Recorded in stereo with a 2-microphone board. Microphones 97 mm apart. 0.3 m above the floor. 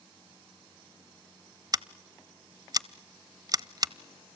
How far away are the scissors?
About 0.6 m.